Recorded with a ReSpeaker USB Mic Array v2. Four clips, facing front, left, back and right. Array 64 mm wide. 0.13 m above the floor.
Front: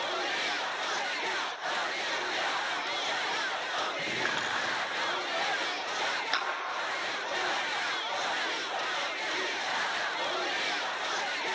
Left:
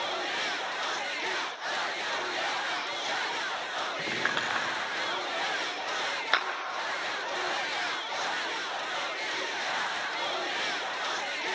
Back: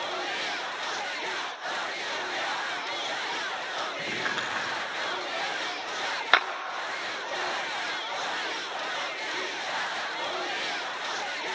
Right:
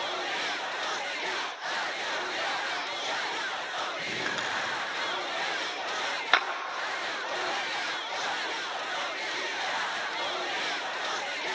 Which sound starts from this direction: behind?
A clap, at 6.3 s.